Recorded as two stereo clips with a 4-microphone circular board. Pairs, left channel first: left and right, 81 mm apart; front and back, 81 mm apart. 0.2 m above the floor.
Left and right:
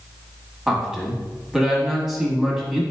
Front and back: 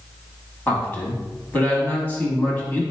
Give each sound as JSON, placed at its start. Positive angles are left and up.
{"t": 0.7, "sound": "a man speaking", "azimuth_deg": -20, "distance_m": 1.1}